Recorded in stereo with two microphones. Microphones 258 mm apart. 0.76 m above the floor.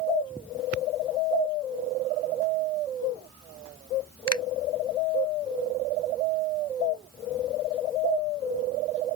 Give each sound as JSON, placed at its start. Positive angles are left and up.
{"t": 4.3, "sound": "a finger snap", "side_deg": 80}